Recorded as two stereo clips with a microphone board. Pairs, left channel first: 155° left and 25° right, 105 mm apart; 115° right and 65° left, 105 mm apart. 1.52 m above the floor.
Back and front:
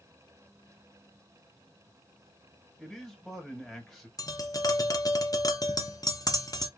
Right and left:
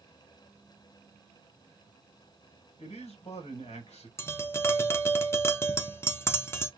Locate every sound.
2.8 s a man speaking: 115° right, 1.7 m
4.2 s tapping: 170° right, 0.7 m